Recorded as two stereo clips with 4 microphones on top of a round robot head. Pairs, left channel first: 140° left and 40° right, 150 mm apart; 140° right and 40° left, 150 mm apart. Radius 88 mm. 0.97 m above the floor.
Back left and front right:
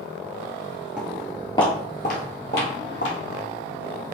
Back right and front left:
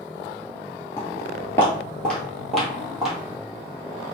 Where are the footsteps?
110° right, 1.0 m; by 3.4 s 125° left, 2 m.